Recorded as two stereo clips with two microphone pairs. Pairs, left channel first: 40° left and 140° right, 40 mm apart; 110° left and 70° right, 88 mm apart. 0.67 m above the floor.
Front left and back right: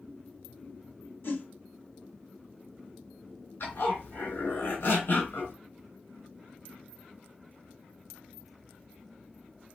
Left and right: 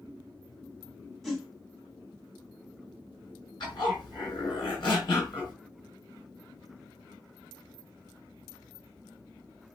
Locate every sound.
1.2 s a whoosh: 25° left, 1.2 m
3.6 s a zipper: 75° left, 3 m